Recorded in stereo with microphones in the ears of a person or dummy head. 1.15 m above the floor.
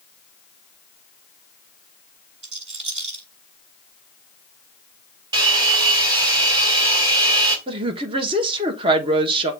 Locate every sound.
2.4 s a rattle: 40° right (ahead or behind), 3.5 m
5.3 s a hair dryer: 30° right (ahead or behind), 2 m
7.7 s a woman speaking: 35° right (ahead or behind), 1.3 m